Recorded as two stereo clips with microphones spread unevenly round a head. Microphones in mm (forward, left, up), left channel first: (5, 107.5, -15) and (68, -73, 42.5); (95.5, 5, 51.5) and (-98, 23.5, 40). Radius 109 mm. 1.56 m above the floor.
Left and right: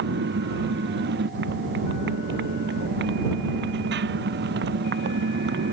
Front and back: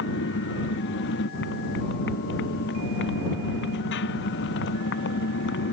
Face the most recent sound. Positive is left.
turn(degrees=-40)